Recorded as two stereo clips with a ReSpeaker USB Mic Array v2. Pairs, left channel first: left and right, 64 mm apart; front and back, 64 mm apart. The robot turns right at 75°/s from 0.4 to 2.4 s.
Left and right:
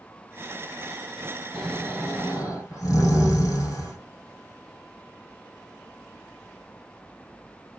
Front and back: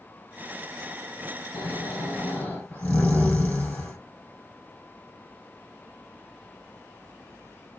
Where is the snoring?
5° right, 1.9 m; by 4.0 s 60° left, 1.9 m.